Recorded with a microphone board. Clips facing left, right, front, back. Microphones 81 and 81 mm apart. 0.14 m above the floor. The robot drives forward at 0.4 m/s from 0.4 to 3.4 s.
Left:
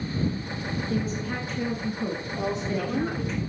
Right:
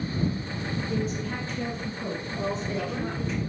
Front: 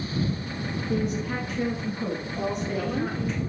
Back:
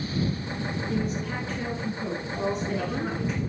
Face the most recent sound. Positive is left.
turn(degrees=95)